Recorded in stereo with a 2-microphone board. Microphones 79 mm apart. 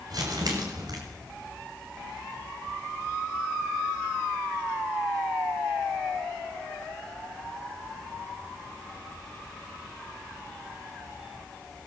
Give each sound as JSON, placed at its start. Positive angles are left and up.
{"t": 0.1, "sound": "crumpling", "side_deg": -60, "distance_m": 7.5}